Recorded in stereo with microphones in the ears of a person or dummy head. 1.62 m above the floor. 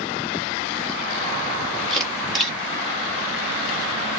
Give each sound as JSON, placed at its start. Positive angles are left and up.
{"t": 1.9, "sound": "a camera shutter", "side_deg": 5, "distance_m": 1.1}